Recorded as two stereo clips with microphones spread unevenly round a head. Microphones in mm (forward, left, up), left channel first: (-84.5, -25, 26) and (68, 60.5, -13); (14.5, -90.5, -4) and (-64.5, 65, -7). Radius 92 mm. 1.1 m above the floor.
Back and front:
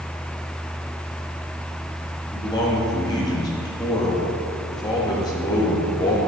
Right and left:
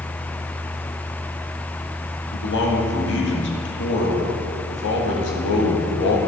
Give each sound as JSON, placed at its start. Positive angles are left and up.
{"t": 2.3, "sound": "a man speaking", "azimuth_deg": -80, "distance_m": 1.8}